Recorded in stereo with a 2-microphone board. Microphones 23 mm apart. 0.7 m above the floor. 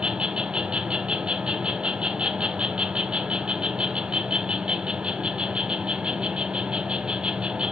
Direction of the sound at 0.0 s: 50° right (ahead or behind).